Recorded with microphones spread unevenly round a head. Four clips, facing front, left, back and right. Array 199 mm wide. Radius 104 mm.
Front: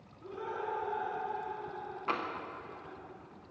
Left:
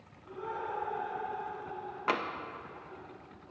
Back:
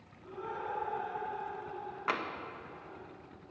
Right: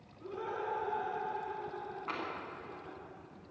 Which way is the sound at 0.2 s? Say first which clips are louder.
Even, front 1 dB; 70° right.